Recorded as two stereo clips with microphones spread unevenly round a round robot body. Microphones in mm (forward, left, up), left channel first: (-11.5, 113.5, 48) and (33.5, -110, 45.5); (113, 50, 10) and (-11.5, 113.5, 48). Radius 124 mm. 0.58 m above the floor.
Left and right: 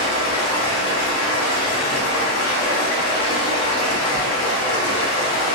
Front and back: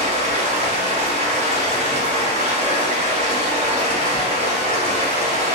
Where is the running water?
110° left, 1.4 m.